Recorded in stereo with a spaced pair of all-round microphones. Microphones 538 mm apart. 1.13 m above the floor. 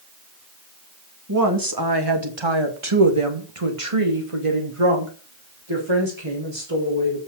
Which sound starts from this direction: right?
A woman speaking, at 1.3 s.